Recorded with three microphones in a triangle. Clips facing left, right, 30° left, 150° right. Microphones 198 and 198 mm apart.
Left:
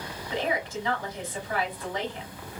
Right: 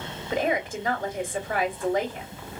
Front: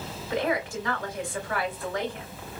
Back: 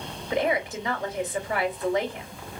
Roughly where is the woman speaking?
Right.